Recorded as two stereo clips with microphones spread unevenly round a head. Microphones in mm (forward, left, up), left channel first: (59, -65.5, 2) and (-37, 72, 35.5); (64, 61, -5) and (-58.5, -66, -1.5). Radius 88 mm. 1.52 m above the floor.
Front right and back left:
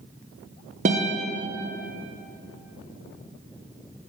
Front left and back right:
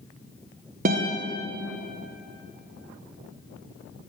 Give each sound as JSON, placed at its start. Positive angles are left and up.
{"t": 0.8, "sound": "a guitar", "azimuth_deg": 175, "distance_m": 1.1}